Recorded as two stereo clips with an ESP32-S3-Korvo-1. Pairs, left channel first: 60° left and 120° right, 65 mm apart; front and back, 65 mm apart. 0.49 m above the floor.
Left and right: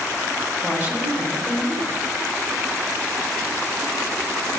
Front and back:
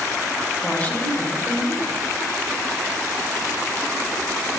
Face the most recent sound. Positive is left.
turn(degrees=-70)